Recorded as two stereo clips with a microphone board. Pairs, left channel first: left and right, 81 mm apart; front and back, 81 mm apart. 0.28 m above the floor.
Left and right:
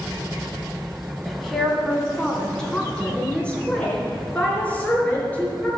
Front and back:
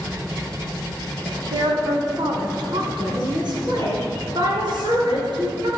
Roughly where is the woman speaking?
Behind.